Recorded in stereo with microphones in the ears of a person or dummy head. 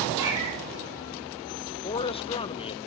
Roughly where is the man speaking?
Left.